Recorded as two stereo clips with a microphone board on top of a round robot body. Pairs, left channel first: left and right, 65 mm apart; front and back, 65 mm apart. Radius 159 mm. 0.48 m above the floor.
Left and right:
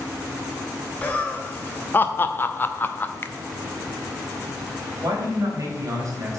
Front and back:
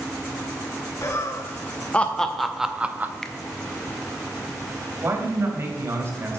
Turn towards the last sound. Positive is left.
turn(degrees=-130)